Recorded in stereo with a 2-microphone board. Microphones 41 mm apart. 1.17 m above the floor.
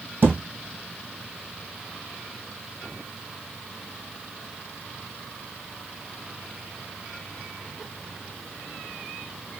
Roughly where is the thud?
Right.